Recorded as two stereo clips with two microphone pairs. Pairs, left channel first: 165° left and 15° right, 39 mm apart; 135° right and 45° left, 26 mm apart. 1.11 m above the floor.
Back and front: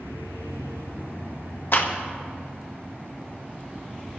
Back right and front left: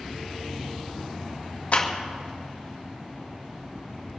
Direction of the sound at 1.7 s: 170° right.